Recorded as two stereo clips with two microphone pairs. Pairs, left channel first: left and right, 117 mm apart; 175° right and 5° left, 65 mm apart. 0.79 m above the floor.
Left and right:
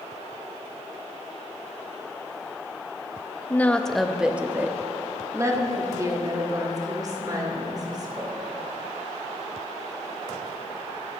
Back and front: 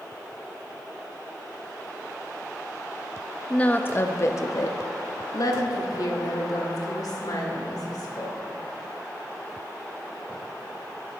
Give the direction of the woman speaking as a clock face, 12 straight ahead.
7 o'clock.